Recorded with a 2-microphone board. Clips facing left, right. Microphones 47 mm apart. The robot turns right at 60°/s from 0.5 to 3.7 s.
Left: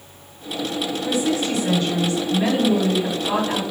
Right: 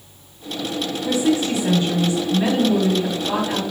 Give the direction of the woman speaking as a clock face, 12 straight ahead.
3 o'clock.